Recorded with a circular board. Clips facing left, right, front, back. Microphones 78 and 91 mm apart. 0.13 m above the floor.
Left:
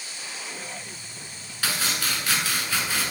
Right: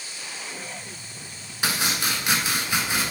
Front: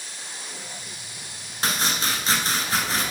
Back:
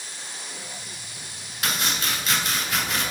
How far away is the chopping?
About 1.3 m.